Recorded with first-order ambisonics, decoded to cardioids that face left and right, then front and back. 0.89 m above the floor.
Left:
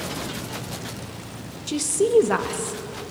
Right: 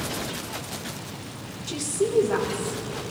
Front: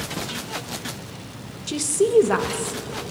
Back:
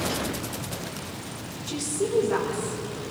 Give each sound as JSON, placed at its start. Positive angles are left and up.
{"t": 1.7, "sound": "a woman speaking", "azimuth_deg": 30, "distance_m": 0.6}